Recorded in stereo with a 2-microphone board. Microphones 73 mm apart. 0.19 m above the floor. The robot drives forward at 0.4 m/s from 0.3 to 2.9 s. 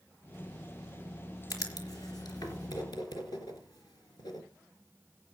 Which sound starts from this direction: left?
Writing, at 1.5 s.